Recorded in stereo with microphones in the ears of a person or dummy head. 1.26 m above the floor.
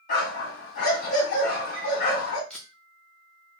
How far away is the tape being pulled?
About 0.7 m.